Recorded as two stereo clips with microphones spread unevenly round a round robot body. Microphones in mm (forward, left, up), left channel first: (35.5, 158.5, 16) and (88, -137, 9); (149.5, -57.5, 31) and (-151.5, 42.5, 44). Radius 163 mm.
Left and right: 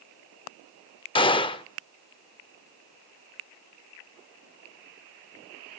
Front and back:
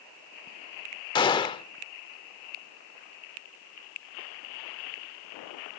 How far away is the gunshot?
About 0.6 m.